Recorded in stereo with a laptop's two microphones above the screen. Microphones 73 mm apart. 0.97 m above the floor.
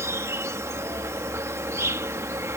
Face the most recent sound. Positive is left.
turn(degrees=-40)  # may be behind; listen again after turning